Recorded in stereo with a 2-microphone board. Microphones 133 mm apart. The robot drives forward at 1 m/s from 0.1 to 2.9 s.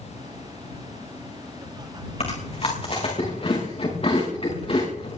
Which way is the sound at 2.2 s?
50° left (ahead or behind).